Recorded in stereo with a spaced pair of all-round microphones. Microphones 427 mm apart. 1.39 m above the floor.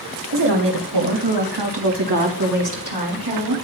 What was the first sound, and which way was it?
A woman speaking, 75° right (ahead or behind).